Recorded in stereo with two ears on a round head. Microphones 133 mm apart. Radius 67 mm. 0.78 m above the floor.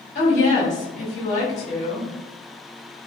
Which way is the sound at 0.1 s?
50° left (ahead or behind).